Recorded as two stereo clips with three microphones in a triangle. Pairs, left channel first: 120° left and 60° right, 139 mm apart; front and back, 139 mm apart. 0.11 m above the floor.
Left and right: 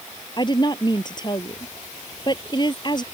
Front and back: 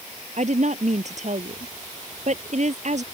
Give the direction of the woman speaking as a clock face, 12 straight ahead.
6 o'clock.